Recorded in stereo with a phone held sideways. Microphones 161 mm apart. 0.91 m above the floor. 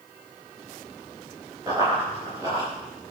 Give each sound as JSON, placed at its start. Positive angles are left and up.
{"t": 1.7, "sound": "running footsteps", "side_deg": -20, "distance_m": 6.5}